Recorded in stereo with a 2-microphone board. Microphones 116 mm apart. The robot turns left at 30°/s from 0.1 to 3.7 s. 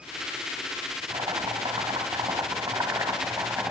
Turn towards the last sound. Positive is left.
turn(degrees=-160)